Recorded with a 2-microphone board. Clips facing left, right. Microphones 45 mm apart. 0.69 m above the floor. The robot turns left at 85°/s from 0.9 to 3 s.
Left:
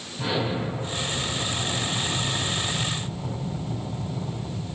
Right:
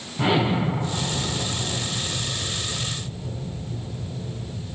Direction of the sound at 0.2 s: 125° right.